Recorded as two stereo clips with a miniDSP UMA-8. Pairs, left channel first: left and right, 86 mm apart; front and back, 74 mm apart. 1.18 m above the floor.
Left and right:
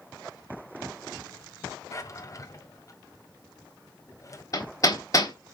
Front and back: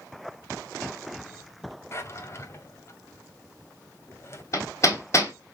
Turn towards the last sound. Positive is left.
turn(degrees=45)